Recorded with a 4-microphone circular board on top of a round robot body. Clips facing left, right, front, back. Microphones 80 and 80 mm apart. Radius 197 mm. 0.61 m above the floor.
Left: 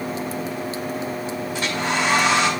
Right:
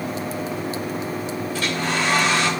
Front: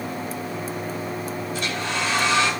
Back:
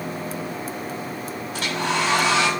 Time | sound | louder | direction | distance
1.5 | a hair dryer | left 1 dB, back 5 dB | 165° left | 2 m